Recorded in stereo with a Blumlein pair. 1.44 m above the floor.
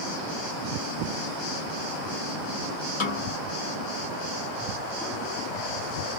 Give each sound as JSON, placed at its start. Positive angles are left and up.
{"t": 3.0, "sound": "a snare drum", "azimuth_deg": 50, "distance_m": 1.2}